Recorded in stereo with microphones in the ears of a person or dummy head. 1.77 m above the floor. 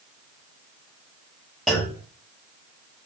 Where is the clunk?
Centre (ahead or behind), 0.8 m.